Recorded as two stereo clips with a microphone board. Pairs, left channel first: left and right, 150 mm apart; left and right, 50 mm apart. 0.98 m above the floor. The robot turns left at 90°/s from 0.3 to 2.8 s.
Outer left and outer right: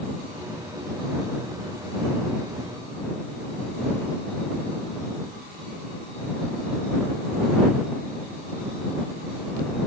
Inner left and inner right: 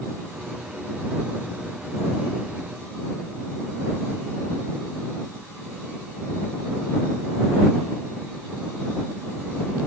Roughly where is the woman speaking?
I don't hear a woman speaking.